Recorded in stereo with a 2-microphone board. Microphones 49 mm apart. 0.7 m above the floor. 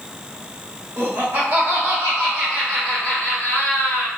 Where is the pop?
No pop in this recording.